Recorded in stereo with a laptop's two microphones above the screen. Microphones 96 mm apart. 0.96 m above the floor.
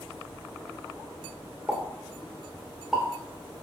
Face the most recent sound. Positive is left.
turn(degrees=-5)  # may be behind; listen again after turning